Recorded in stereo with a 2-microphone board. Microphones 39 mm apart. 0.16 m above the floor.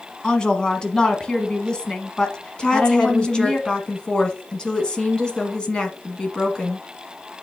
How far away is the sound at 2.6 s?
About 1.3 m.